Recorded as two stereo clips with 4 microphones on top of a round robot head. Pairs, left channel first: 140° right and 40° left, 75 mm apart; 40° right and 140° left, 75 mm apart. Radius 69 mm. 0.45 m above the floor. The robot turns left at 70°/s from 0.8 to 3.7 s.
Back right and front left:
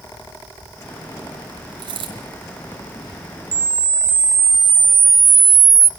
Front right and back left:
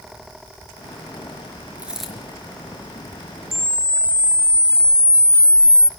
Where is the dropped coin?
70° left, 4.5 m; by 2.1 s 45° left, 4.5 m.